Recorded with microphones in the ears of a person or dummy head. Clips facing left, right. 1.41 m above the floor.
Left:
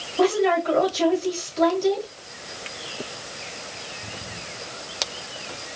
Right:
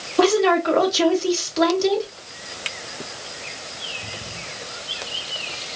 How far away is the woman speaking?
About 1.9 m.